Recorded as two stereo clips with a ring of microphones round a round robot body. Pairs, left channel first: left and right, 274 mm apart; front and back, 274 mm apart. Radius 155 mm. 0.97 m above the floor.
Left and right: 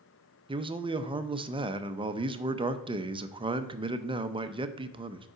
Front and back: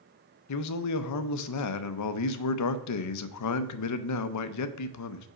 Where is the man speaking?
15° right, 0.6 m.